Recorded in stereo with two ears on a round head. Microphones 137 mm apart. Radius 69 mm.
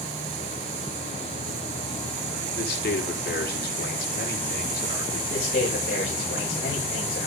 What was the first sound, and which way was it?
A man speaking, 65° left (ahead or behind).